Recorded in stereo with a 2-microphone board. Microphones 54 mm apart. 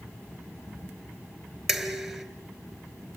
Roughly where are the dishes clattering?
Centre.